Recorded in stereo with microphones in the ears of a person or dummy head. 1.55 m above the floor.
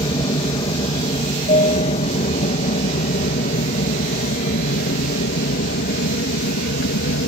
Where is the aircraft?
30° left (ahead or behind); by 7.3 s 60° left (ahead or behind).